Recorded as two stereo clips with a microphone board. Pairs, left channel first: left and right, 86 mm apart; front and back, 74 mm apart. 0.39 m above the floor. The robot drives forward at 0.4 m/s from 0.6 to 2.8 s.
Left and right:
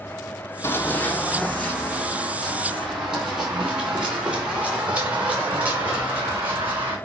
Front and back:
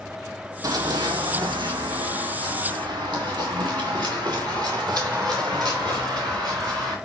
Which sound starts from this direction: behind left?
Running footsteps, at 0.6 s.